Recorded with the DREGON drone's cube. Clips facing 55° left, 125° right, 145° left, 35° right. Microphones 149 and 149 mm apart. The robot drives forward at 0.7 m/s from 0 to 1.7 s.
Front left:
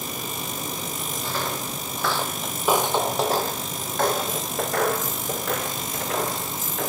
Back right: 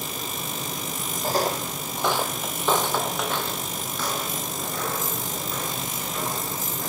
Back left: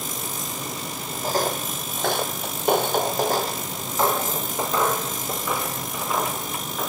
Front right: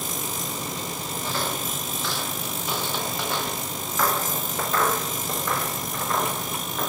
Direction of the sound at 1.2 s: 170° right.